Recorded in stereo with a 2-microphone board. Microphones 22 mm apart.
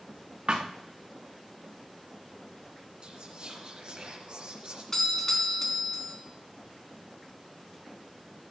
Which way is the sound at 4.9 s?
15° left (ahead or behind).